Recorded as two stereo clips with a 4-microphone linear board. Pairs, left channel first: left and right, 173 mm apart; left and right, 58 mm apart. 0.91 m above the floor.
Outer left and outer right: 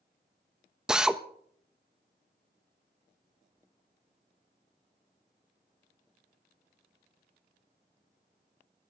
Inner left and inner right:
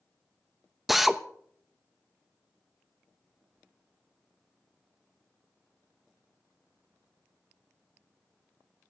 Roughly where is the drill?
Centre.